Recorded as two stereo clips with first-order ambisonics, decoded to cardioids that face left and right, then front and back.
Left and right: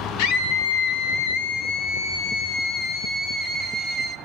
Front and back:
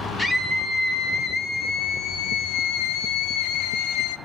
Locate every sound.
0.2 s a scream: 80° left, 2 m; by 4.2 s 15° right, 1.7 m